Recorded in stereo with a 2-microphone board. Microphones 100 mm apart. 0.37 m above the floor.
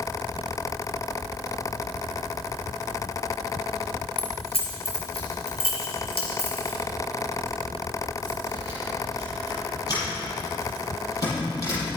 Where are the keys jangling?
70° left (ahead or behind), 4 m; by 11.9 s 35° left (ahead or behind), 7.5 m.